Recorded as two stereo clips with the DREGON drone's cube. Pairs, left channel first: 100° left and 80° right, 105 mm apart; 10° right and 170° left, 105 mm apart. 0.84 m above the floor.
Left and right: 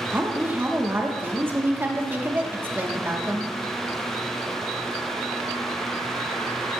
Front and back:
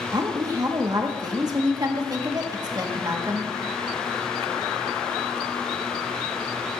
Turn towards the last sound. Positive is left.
turn(degrees=-145)